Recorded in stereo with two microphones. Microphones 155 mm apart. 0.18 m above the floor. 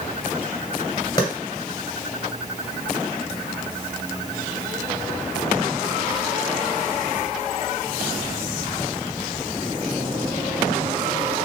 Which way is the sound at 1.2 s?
25° left (ahead or behind).